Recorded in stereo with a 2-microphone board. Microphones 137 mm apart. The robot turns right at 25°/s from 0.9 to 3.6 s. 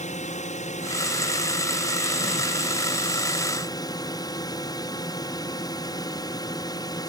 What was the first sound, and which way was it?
A drone, 80° left.